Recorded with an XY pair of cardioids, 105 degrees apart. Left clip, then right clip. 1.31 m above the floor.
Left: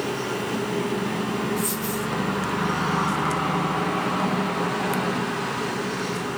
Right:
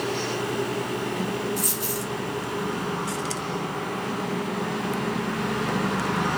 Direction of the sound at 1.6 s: 70° right.